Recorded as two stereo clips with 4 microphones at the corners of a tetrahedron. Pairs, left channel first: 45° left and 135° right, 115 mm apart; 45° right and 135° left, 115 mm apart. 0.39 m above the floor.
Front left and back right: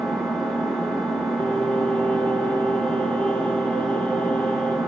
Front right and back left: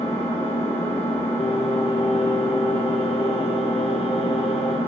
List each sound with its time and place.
0.0 s an engine running: 40° right, 1.5 m
1.4 s singing: 35° right, 0.7 m